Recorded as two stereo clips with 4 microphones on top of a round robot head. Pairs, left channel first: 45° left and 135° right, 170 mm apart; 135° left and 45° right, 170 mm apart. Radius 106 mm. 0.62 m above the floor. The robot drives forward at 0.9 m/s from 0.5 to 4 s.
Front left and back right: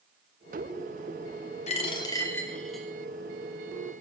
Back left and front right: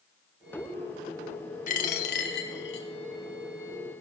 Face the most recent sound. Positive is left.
turn(degrees=150)